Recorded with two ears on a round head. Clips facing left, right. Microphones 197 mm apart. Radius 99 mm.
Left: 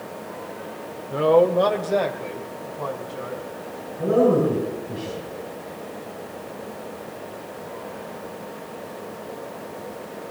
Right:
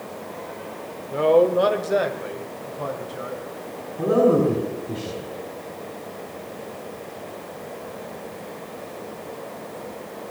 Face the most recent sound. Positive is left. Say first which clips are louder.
# right 1 dB
turn(degrees=-65)  # may be behind; listen again after turning